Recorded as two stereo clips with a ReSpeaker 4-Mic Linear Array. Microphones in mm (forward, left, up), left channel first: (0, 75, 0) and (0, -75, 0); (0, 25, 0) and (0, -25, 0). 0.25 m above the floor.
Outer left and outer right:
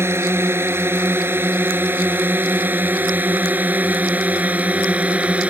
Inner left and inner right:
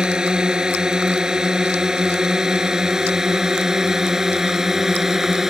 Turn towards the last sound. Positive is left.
turn(degrees=-10)  # may be behind; listen again after turning